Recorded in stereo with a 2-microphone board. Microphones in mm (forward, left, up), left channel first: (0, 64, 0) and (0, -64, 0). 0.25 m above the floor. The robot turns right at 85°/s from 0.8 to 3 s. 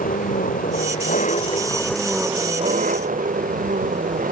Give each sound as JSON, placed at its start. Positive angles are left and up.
{"t": 0.0, "sound": "an engine running", "azimuth_deg": 80}